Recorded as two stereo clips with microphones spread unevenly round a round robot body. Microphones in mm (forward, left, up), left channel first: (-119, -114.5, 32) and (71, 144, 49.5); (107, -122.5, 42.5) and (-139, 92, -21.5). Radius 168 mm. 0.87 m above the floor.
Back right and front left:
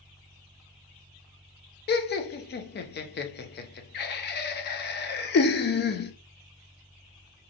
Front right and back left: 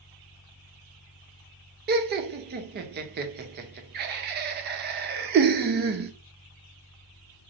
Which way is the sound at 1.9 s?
175° right.